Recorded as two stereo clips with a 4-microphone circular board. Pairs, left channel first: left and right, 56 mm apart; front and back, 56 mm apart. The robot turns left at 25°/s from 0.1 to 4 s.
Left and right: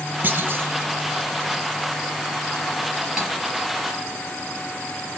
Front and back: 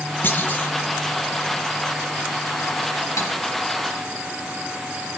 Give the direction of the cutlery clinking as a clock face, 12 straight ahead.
12 o'clock.